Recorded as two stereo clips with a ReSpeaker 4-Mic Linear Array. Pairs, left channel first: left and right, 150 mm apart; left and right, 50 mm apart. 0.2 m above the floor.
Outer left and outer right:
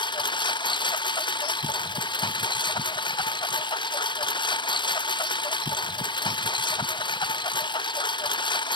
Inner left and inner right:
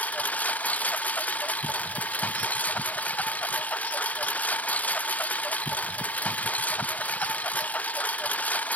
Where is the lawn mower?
30° left (ahead or behind).